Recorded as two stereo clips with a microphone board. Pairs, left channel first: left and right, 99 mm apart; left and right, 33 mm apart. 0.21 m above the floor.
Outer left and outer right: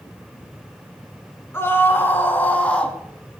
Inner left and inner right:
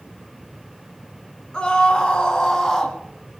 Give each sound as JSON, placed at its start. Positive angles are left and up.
{"t": 1.5, "sound": "a scream", "side_deg": 25, "distance_m": 2.5}